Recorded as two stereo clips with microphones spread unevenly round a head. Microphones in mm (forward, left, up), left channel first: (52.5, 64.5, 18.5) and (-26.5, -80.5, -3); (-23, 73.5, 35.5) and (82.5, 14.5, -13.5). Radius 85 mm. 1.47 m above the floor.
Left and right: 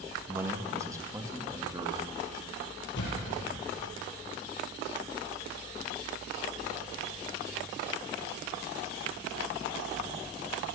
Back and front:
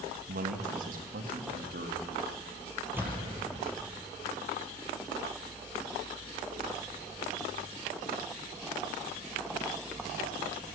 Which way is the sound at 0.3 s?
40° right.